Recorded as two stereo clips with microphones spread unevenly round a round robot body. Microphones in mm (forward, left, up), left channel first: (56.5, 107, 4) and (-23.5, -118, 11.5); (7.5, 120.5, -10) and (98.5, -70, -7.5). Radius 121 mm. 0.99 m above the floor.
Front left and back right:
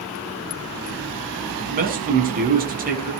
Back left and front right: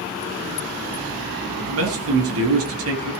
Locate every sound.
1.6 s a man speaking: 55° right, 8 m